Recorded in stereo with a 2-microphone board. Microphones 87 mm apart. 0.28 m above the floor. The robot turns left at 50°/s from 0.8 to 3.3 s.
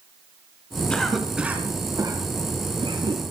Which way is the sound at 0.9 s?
10° left (ahead or behind).